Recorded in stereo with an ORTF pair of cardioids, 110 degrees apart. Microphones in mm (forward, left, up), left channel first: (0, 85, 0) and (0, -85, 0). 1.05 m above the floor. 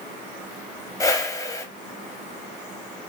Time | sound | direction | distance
1.0 | a whoosh | 20° left | 0.6 m